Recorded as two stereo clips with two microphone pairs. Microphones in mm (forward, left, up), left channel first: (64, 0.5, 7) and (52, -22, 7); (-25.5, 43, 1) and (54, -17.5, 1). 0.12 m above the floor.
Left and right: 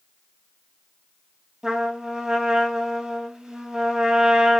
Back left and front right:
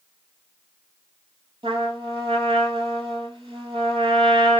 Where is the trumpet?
50° right, 1.4 m.